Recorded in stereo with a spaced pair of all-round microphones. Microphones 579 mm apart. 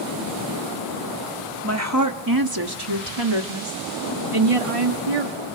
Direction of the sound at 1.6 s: 25° right (ahead or behind).